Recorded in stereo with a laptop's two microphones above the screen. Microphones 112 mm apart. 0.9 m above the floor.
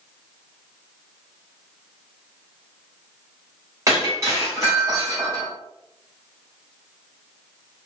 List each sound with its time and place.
3.9 s breaking glass: 30° right (ahead or behind), 1.7 m